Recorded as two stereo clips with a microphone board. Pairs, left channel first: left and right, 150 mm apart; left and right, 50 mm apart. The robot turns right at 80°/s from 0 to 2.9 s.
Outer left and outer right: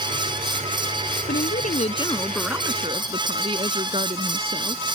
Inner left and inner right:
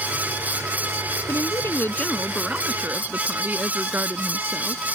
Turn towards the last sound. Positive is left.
turn(degrees=-140)